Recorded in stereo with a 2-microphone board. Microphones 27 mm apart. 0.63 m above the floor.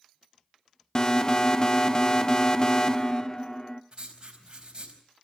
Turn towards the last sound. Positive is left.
turn(degrees=-35)  # may be behind; listen again after turning